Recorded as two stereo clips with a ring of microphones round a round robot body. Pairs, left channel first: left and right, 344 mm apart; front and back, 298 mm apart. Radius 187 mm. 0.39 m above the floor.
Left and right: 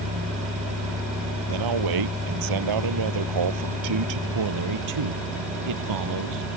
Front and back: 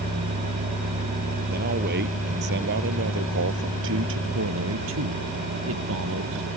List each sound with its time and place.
1.5 s a man speaking: 115° right; by 4.2 s 125° right
4.3 s a man speaking: 125° right